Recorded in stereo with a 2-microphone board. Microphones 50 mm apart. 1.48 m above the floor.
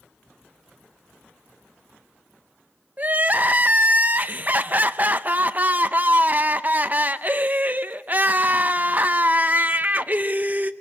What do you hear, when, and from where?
3.0 s crying: 35° right (ahead or behind), 0.7 m